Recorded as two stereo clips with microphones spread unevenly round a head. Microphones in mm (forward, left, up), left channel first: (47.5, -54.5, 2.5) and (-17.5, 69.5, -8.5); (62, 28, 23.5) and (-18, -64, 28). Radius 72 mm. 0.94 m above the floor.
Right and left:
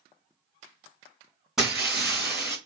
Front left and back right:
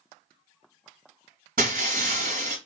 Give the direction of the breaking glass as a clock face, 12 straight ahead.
5 o'clock.